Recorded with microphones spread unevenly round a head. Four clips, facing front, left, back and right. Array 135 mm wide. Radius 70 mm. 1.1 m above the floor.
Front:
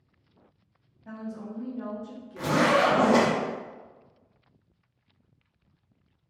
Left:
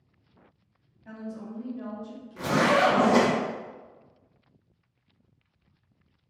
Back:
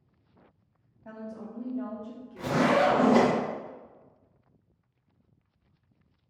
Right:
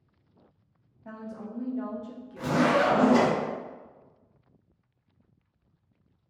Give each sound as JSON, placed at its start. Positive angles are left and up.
{"t": 1.1, "sound": "a woman speaking", "azimuth_deg": -140, "distance_m": 0.9}
{"t": 2.4, "sound": "a zipper", "azimuth_deg": 20, "distance_m": 1.0}